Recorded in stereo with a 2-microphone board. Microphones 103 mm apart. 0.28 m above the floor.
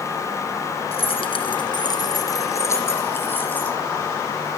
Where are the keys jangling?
70° left (ahead or behind), 2 m; by 3.8 s 15° left (ahead or behind), 4 m.